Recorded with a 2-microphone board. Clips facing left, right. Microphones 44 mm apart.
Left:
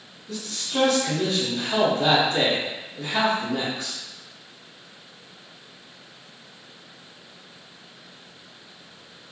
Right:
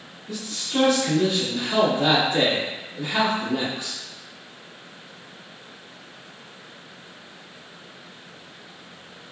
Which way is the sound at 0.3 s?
15° right (ahead or behind).